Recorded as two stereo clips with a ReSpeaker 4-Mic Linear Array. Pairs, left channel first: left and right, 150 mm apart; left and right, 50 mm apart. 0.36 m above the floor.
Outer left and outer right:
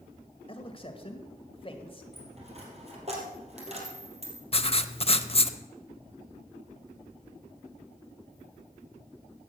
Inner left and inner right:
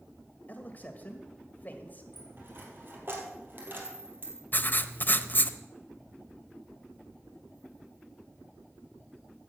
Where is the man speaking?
35° left (ahead or behind), 1.8 m.